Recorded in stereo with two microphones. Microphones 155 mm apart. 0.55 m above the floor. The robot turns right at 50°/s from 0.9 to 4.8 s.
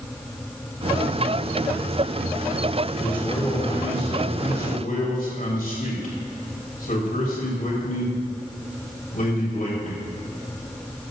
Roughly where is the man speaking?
Ahead.